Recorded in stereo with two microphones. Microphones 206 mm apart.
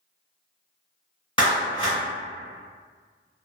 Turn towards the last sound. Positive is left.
turn(degrees=25)  # may be behind; listen again after turning